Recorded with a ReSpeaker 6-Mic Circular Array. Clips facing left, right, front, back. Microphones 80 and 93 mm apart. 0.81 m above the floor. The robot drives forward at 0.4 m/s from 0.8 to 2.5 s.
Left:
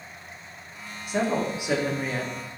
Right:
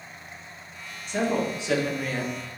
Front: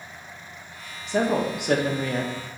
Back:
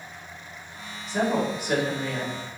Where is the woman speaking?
10° left, 1.2 m; by 2.3 s 20° left, 0.8 m.